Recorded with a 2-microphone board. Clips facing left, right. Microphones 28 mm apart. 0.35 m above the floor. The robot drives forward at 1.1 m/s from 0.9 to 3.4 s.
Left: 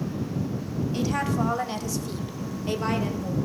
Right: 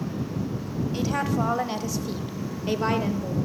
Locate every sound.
0.9 s a woman speaking: 5° right (ahead or behind), 2 m; by 3.3 s 10° right (ahead or behind), 1.3 m